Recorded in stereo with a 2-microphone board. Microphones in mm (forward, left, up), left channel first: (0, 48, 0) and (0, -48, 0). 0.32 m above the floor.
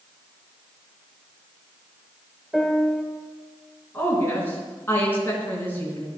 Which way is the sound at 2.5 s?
Centre (ahead or behind).